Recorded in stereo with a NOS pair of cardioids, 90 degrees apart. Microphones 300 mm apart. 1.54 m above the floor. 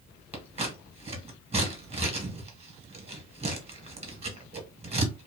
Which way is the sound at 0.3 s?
20° right.